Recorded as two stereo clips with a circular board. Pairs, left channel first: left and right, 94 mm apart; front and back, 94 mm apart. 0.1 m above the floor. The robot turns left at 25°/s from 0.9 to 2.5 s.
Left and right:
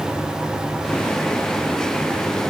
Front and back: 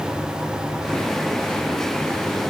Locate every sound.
Only background noise.